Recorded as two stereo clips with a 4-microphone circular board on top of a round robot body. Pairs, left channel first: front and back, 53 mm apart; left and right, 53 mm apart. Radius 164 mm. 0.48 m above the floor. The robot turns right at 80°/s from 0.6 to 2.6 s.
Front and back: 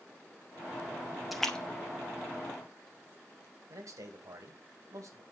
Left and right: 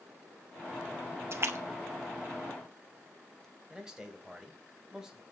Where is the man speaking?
170° right, 3 m.